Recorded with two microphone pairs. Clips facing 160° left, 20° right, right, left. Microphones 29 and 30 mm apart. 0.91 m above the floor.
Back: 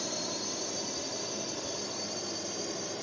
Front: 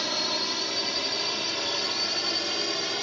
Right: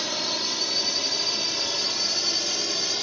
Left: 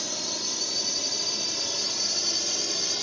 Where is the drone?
40° right; by 3.0 s 20° right.